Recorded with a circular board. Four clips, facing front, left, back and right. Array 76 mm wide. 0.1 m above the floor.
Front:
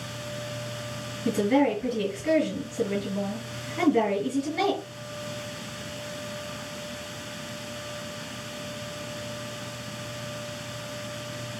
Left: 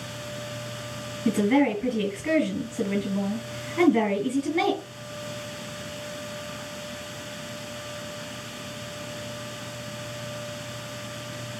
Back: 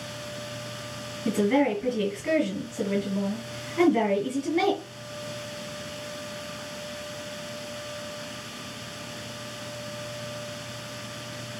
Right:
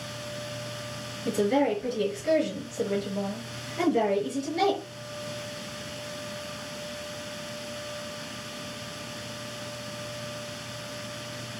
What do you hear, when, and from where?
1.2 s a woman speaking: 90° left, 1.9 m